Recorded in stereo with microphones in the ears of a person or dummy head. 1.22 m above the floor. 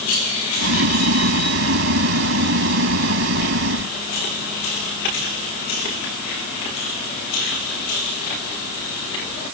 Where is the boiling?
70° right (ahead or behind).